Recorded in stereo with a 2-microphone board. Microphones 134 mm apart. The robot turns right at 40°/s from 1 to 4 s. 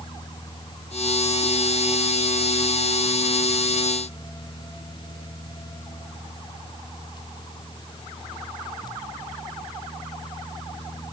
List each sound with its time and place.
Only background noise.